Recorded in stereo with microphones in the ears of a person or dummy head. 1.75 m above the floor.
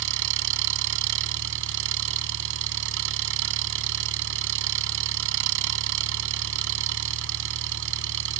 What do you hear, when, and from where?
0.0 s an engine running: 70° right (ahead or behind)